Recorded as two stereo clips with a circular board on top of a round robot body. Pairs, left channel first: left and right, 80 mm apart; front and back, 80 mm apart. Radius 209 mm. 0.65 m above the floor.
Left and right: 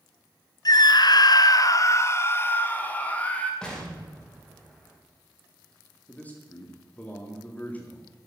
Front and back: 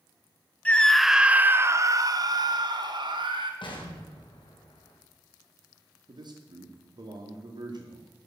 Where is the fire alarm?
I don't hear a fire alarm.